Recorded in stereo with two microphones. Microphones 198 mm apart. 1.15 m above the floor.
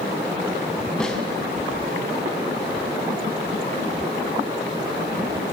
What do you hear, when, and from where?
1.0 s a snare drum: 5° left (ahead or behind), 4 m